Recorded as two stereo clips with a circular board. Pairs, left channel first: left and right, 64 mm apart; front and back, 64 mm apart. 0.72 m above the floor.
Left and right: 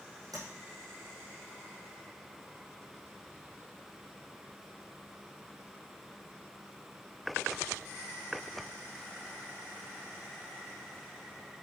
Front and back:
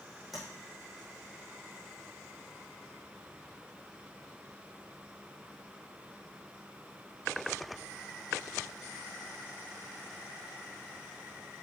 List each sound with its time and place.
0.3 s tapping: 90° right, 5 m